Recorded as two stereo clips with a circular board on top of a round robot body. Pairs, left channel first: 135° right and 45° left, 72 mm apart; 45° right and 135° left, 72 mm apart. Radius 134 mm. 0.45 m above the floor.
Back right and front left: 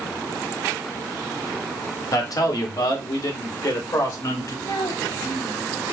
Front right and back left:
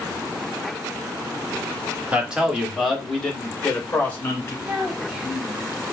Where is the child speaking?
150° right, 1.5 m.